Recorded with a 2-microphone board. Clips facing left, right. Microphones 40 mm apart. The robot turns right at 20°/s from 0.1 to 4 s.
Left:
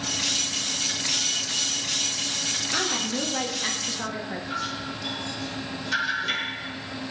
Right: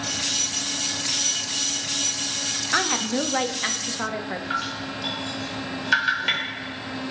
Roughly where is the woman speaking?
Right.